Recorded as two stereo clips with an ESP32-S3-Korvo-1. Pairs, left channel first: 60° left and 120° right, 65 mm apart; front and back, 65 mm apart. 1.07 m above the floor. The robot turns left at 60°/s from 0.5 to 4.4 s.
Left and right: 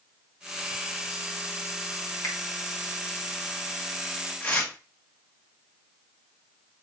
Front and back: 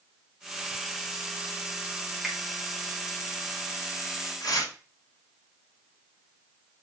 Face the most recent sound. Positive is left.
turn(degrees=-15)